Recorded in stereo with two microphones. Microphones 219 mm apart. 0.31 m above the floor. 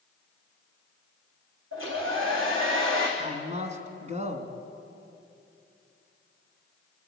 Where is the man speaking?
30° right (ahead or behind), 2.5 m.